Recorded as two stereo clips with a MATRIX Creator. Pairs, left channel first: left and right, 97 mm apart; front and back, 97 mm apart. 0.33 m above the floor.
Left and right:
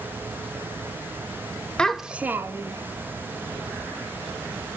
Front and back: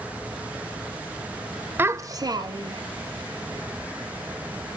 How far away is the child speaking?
About 0.5 m.